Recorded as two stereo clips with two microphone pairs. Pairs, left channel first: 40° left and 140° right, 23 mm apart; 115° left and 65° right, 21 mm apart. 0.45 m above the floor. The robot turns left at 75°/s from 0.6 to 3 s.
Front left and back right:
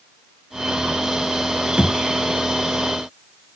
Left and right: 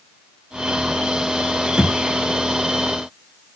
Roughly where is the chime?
I don't hear a chime.